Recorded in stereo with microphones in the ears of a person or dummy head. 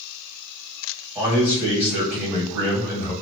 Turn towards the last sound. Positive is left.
turn(degrees=-15)  # may be behind; listen again after turning